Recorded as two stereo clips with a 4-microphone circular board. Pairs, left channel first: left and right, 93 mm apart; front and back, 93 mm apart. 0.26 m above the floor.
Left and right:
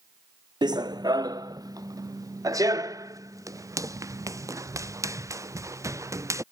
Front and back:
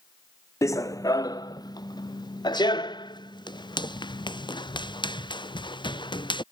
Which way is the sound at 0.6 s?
55° right.